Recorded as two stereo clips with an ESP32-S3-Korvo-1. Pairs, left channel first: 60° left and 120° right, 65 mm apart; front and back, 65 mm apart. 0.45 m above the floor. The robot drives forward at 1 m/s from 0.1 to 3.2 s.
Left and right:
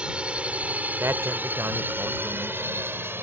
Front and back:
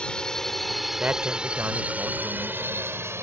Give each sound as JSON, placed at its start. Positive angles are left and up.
{"t": 0.0, "sound": "a drone", "azimuth_deg": -65}
{"t": 1.0, "sound": "a man speaking", "azimuth_deg": -125}